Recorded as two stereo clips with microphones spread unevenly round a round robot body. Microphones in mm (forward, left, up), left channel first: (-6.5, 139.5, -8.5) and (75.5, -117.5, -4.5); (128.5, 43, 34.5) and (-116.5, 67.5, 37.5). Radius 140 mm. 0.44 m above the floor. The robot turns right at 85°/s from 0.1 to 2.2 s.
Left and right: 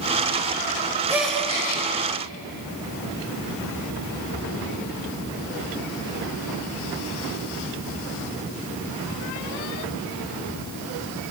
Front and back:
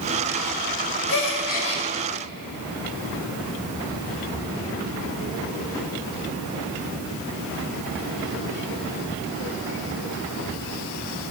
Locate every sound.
1.1 s a gasp: 5° left, 2.5 m; by 1.8 s 65° left, 2.5 m